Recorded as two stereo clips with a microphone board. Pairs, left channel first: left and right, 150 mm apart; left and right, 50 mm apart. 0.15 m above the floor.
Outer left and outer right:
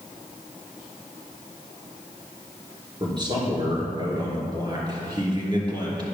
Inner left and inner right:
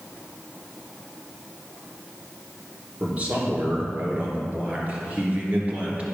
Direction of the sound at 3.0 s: 30° right (ahead or behind).